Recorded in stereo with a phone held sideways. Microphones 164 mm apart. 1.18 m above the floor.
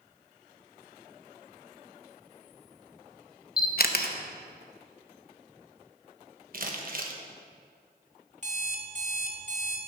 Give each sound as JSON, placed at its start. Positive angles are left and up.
{"t": 3.6, "sound": "a camera shutter", "side_deg": 65, "distance_m": 0.7}
{"t": 6.5, "sound": "crumpling", "side_deg": -60, "distance_m": 1.1}
{"t": 8.4, "sound": "an alarm clock", "side_deg": -50, "distance_m": 1.4}